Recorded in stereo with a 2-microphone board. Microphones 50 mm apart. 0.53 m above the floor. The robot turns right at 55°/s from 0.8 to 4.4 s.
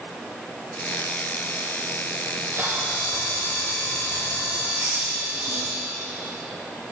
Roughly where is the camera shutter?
Behind right.